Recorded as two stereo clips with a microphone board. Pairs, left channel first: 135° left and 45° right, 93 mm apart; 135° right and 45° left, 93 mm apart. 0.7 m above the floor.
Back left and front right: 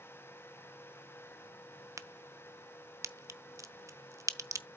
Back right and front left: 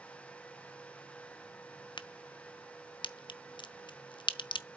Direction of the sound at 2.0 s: 100° right.